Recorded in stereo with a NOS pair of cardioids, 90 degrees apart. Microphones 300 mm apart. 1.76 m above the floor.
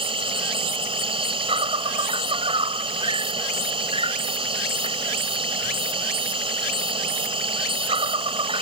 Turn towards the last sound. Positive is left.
turn(degrees=-15)